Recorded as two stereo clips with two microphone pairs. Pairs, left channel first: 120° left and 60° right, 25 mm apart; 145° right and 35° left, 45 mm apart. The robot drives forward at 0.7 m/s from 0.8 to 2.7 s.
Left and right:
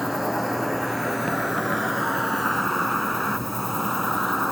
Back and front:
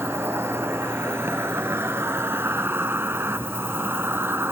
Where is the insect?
15° left, 2.5 m; by 4.5 s 30° left, 1.3 m.